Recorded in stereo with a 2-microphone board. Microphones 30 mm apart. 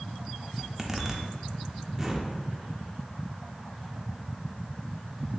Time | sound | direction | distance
0.6 | a zipper | 10° right (ahead or behind) | 0.6 m